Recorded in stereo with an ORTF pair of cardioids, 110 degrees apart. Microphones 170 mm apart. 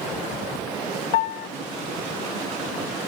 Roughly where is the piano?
Ahead left.